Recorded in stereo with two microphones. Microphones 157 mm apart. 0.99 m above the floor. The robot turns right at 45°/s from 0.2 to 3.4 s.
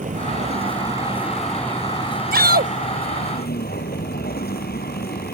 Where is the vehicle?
55° right; by 5.3 s 90° left.